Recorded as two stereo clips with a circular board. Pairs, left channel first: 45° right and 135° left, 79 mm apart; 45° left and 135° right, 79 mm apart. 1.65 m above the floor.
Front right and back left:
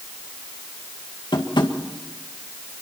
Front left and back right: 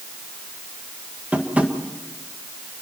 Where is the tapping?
65° right, 2.0 m.